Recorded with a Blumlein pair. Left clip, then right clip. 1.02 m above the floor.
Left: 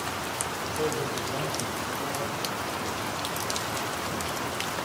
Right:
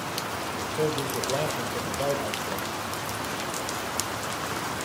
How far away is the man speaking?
About 3.5 m.